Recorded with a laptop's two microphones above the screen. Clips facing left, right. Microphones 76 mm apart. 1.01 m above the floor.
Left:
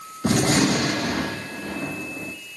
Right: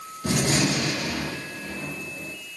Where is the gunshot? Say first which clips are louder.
Left 4 dB; 50° left (ahead or behind), 0.9 m.